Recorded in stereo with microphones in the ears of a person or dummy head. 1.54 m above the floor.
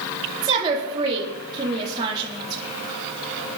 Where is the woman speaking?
25° right (ahead or behind), 4.5 m.